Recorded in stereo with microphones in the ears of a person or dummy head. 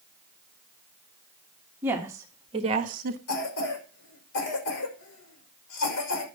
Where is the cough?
65° left (ahead or behind), 5.5 m.